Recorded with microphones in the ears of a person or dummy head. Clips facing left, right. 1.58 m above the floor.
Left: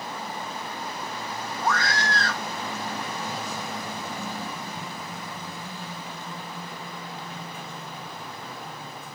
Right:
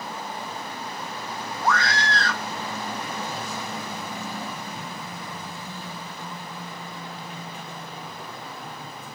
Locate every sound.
1.6 s a scream: 70° right (ahead or behind)